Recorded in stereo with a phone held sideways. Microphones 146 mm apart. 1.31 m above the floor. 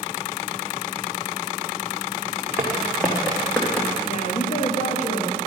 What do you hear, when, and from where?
2.6 s footsteps: 15° right (ahead or behind), 3 m; by 3.9 s 10° left (ahead or behind), 4 m
4.1 s a woman speaking: 50° left (ahead or behind), 2 m